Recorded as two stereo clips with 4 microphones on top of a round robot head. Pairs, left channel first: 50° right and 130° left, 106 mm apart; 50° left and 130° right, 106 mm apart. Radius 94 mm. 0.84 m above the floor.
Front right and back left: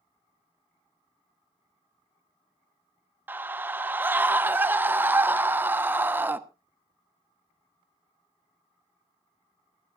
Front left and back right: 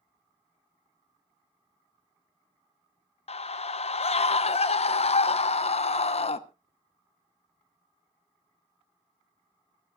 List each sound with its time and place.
3.3 s a scream: 60° left, 1.2 m